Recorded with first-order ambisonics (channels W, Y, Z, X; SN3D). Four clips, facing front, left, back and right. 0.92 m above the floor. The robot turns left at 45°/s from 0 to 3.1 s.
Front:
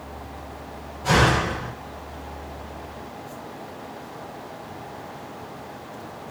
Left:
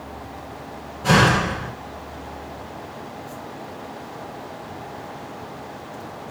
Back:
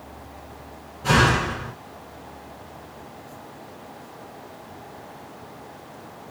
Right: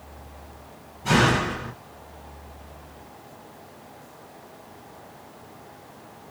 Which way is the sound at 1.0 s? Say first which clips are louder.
Left 4 dB, even; 100° left.